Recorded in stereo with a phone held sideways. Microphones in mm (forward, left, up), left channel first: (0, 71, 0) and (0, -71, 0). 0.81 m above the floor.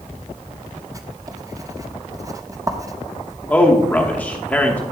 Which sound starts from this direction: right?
Writing, at 0.9 s.